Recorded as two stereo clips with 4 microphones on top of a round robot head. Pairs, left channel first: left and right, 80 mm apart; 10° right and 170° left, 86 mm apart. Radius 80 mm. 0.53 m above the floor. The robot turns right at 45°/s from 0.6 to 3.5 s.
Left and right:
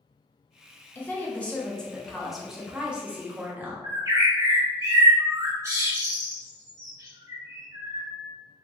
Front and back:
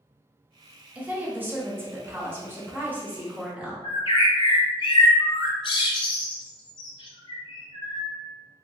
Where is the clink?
I don't hear a clink.